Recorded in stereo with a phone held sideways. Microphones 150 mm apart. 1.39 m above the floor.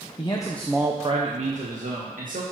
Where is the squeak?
No squeak in this recording.